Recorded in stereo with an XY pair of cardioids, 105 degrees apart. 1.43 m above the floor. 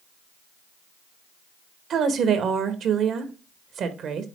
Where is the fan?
No fan in this recording.